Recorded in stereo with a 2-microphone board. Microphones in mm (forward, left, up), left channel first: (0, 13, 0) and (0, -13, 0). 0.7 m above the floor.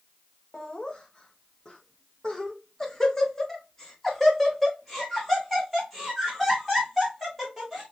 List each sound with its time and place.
0.5 s laughter: 35° left (ahead or behind), 1.1 m; by 7.8 s centre (ahead or behind), 3.5 m